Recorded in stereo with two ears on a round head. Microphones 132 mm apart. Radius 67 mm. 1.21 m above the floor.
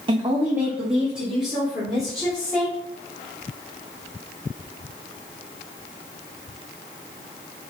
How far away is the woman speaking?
About 0.6 m.